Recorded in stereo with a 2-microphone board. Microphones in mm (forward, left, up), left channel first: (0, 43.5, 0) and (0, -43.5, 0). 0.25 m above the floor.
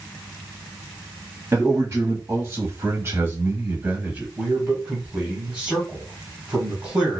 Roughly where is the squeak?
I don't hear a squeak.